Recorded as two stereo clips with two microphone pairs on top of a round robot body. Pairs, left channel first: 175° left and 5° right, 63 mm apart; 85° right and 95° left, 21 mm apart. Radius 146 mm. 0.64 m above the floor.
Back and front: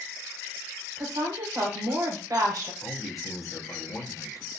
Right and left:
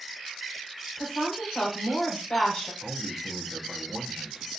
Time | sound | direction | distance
1.0 | a woman speaking | 25° right | 2.5 m
2.8 | a man speaking | 140° left | 1.4 m